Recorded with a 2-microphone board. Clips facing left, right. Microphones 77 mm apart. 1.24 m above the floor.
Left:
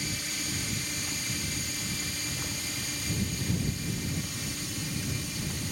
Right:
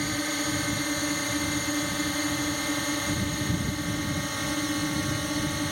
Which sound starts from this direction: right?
A drone, at 0.0 s.